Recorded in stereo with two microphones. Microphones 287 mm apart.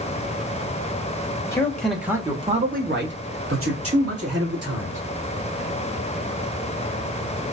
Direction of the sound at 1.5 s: 10° left (ahead or behind).